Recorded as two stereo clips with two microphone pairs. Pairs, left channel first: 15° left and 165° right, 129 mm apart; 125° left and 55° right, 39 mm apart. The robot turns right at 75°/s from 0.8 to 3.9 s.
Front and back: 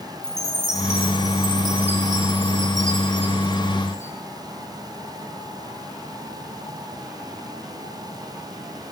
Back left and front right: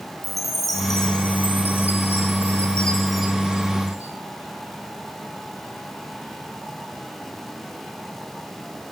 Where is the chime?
35° left, 5 m; by 4.1 s 90° right, 5 m.